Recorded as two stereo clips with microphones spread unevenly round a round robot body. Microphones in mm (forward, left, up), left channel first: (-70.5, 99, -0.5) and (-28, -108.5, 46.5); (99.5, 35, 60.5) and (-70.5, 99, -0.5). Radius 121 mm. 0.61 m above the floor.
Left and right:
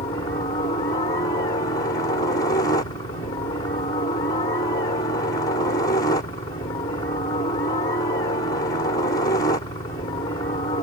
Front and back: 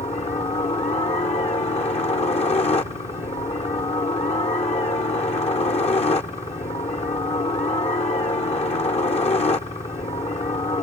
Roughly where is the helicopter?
Ahead left.